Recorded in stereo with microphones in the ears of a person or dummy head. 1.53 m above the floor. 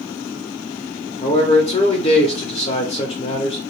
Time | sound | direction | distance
1.2 | a man speaking | 25° left (ahead or behind) | 0.7 m